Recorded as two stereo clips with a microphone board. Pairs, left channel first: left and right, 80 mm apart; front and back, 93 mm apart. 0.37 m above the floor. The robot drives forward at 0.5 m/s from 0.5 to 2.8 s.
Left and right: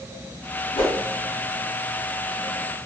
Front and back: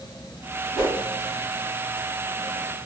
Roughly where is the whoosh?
Left.